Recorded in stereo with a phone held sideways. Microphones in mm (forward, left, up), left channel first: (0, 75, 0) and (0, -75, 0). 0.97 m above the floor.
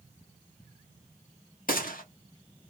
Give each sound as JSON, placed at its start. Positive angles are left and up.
{"t": 1.7, "sound": "a gunshot", "side_deg": 70, "distance_m": 1.2}